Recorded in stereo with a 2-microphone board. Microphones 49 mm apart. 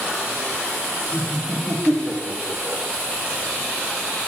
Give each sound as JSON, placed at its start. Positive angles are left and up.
{"t": 1.1, "sound": "laughter", "side_deg": 0, "distance_m": 3.5}